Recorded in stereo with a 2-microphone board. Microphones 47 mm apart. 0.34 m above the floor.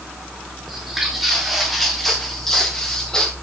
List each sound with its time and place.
0.7 s footsteps: 5° right (ahead or behind), 5.5 m; by 3.3 s 15° left (ahead or behind), 5 m